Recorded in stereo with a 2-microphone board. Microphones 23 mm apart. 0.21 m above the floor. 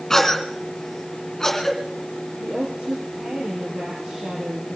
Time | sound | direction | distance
0.1 | a cough | 20° left (ahead or behind) | 2.5 m
2.4 | a woman speaking | 75° right (ahead or behind) | 5 m